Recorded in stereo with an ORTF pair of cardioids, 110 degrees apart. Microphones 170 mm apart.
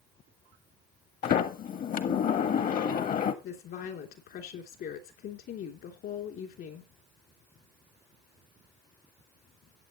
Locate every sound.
1.2 s a sliding door: 55° left, 1.6 m
3.4 s a woman speaking: 65° left, 3.5 m